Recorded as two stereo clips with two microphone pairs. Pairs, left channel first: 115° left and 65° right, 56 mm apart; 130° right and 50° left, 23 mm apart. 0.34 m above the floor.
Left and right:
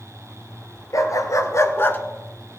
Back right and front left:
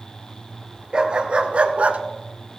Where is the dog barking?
110° left, 1.3 m; by 2.0 s 60° left, 0.7 m.